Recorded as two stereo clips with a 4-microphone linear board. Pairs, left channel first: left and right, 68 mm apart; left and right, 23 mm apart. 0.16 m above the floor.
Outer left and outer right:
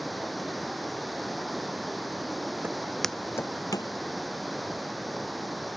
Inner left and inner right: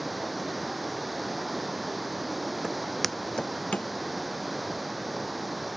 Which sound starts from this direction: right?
Footsteps, at 2.6 s.